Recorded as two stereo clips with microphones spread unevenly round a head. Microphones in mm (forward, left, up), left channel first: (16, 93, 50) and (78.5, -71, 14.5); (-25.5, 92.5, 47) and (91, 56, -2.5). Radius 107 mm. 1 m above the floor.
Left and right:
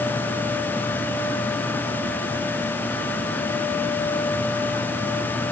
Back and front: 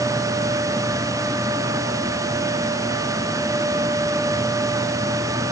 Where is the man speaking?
No man speaking in this recording.